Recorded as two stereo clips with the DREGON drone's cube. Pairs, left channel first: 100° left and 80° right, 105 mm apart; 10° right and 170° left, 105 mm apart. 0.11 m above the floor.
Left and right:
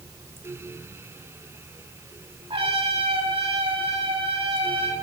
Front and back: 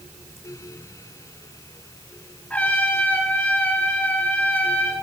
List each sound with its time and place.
2.5 s a trumpet: 85° right, 3 m